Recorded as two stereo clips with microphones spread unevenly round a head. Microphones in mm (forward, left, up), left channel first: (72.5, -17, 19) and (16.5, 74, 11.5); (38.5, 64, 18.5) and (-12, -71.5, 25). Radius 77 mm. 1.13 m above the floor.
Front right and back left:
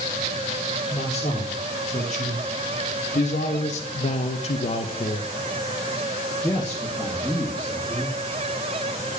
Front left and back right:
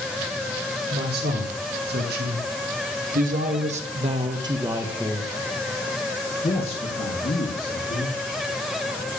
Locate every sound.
0.9 s a man speaking: 105° right, 3.5 m; by 8.2 s 35° left, 3 m